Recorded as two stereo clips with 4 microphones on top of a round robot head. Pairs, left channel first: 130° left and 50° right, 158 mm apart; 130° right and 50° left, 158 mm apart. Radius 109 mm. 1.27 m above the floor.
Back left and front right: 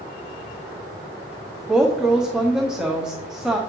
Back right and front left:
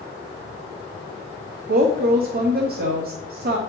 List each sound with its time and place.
1.7 s a woman speaking: 35° left, 0.9 m